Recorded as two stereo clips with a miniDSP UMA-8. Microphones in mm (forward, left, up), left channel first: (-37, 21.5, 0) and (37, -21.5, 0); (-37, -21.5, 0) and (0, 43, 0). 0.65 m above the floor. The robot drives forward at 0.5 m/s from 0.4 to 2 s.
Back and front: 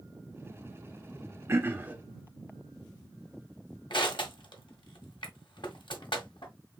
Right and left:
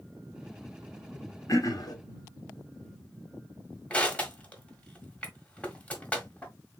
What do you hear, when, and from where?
1.5 s throat clearing: 85° right, 1.0 m; by 1.9 s 100° right, 1.0 m
3.9 s crushing: 170° left, 1.4 m